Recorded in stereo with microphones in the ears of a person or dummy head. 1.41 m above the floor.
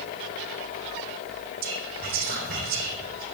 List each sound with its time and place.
1.6 s whispering: 60° right (ahead or behind), 3.5 m